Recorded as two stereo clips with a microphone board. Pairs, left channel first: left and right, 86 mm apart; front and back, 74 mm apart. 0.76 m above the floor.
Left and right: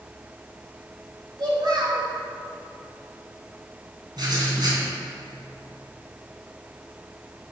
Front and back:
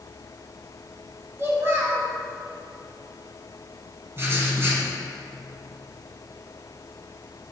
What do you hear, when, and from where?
1.4 s a child speaking: 120° right, 3.5 m
4.2 s writing: 125° right, 2.5 m